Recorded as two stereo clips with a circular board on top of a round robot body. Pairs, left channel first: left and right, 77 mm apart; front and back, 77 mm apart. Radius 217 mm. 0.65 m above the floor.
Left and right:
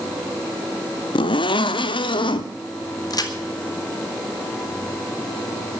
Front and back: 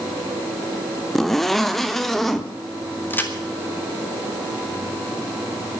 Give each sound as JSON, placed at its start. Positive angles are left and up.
{"t": 1.1, "sound": "a zipper", "azimuth_deg": 90, "distance_m": 0.7}
{"t": 3.1, "sound": "a crack", "azimuth_deg": 65, "distance_m": 2.5}